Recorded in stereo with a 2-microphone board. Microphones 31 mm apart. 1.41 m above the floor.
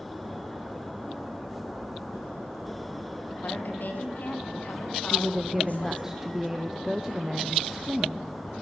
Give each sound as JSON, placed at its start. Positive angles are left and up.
{"t": 3.4, "sound": "a woman speaking", "side_deg": 75, "distance_m": 2.0}
{"t": 5.1, "sound": "a woman speaking", "side_deg": -10, "distance_m": 0.7}